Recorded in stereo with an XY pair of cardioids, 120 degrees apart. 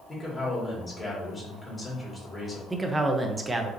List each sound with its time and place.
0.1 s a man speaking: 10° left, 2 m
2.7 s a man speaking: 20° right, 0.7 m